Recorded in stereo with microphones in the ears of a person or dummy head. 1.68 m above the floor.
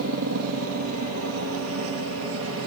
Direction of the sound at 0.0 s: 70° right (ahead or behind).